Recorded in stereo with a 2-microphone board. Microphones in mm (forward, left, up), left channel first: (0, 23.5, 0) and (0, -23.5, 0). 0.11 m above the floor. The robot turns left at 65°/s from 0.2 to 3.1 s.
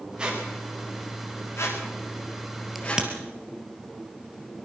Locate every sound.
0.2 s a squeak: 20° right (ahead or behind), 7 m; by 3.1 s 15° left (ahead or behind), 7 m
2.8 s a crack: 5° right (ahead or behind), 2.5 m; by 3.1 s 20° right (ahead or behind), 2.5 m